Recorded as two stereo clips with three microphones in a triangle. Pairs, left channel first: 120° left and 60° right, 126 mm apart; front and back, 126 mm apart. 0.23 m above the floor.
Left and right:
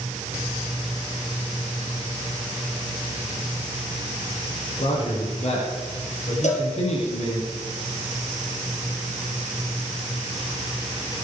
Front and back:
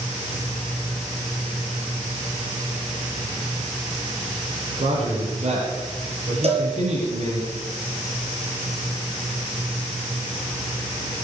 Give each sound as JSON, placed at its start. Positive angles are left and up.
{"t": 4.8, "sound": "a man speaking", "azimuth_deg": 150, "distance_m": 8.0}
{"t": 6.4, "sound": "a cowbell", "azimuth_deg": 145, "distance_m": 3.0}